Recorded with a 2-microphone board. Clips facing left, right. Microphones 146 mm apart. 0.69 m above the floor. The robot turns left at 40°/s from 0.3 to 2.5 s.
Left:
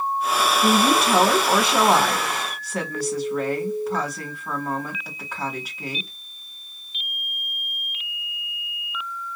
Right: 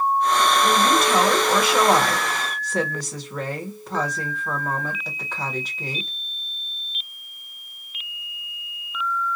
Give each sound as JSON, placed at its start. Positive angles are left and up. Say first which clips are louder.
{"t": 0.6, "sound": "a woman speaking", "louder": "left 1 dB", "azimuth_deg": 75, "distance_m": 1.5}